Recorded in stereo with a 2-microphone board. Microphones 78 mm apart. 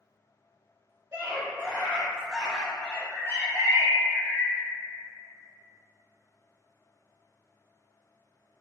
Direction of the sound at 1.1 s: 35° right (ahead or behind).